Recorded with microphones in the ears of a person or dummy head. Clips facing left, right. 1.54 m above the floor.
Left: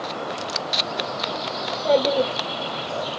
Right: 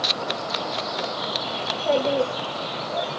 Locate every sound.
1.6 s a child speaking: 40° left (ahead or behind), 1.8 m; by 3.1 s 5° left (ahead or behind), 1.7 m